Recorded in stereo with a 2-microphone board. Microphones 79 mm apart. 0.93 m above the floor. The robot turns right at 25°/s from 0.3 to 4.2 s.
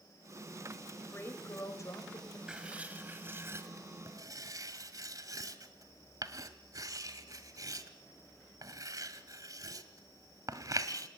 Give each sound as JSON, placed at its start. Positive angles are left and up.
{"t": 0.9, "sound": "a woman speaking", "azimuth_deg": 25, "distance_m": 4.0}
{"t": 2.5, "sound": "writing", "side_deg": -10, "distance_m": 1.7}